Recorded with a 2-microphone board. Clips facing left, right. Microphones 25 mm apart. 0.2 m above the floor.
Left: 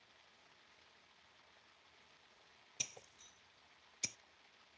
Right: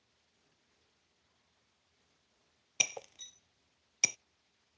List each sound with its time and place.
0.0 s running water: 85° left
2.8 s breaking glass: 85° right